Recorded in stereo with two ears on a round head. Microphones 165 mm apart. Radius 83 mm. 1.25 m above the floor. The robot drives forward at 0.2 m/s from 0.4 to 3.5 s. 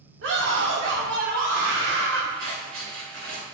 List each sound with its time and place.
0.2 s a scream: 70° right (ahead or behind), 1.1 m; by 2.3 s 60° right (ahead or behind), 1.2 m
2.4 s scissors: 85° right, 2.5 m; by 3.4 s 80° right, 2.5 m